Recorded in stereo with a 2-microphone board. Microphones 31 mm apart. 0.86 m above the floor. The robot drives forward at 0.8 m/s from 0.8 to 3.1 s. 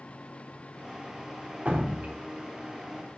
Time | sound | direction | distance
1.6 | dripping | 50° right (ahead or behind) | 0.9 m